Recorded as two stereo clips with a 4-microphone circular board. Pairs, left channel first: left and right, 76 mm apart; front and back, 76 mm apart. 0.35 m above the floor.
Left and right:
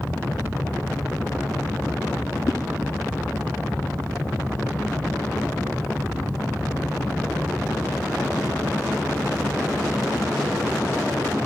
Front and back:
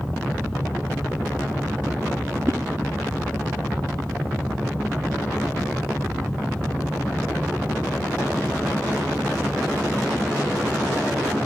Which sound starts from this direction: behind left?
A whoosh, at 2.5 s.